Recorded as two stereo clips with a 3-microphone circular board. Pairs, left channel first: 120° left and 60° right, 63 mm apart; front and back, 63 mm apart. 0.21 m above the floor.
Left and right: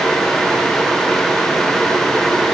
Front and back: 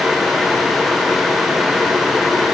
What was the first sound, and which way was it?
Only background noise.